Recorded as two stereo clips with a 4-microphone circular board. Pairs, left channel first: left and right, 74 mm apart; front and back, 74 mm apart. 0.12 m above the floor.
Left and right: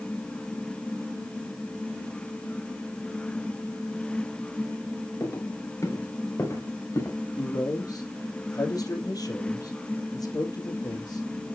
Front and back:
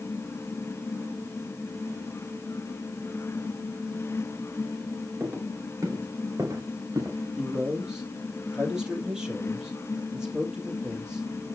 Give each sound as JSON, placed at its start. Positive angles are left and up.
{"t": 5.2, "sound": "footsteps", "azimuth_deg": 130, "distance_m": 4.5}
{"t": 7.4, "sound": "a man speaking", "azimuth_deg": 100, "distance_m": 3.0}